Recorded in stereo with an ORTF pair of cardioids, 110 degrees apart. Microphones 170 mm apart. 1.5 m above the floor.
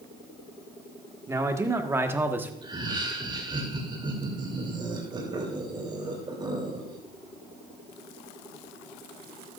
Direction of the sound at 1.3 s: 20° right.